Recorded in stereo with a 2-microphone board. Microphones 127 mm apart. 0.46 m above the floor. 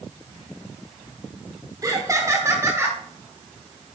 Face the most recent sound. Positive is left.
turn(degrees=-20)  # may be behind; listen again after turning